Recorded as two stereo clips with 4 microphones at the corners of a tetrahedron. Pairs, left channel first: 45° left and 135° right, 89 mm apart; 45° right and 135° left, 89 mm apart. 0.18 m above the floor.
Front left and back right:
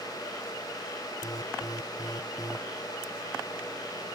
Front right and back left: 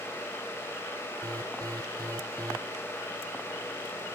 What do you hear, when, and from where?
1.2 s an alarm: 90° left